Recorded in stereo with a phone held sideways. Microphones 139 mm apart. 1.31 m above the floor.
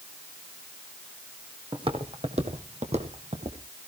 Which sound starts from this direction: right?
Footsteps, at 1.7 s.